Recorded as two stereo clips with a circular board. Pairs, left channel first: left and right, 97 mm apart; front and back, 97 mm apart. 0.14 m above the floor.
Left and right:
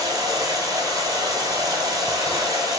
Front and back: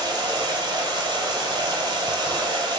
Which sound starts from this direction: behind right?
Running water, at 0.0 s.